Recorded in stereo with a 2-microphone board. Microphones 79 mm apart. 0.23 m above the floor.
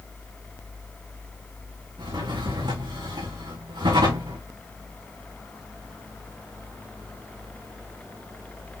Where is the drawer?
85° right, 5.5 m.